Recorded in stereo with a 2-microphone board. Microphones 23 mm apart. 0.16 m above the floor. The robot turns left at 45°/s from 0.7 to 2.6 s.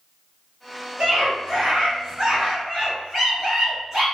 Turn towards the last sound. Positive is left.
turn(degrees=-160)